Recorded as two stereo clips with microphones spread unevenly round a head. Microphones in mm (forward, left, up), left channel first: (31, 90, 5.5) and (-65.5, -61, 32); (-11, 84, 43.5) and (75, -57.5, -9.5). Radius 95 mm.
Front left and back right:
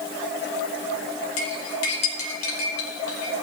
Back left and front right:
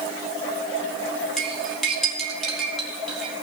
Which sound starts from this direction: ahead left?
Cutlery clinking, at 1.4 s.